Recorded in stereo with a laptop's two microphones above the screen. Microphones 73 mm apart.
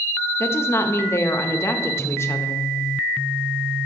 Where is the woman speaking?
35° left (ahead or behind), 0.8 m.